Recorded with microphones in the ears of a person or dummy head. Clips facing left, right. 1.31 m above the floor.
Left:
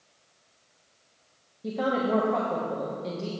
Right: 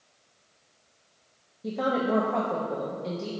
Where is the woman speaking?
Centre (ahead or behind), 1.2 m.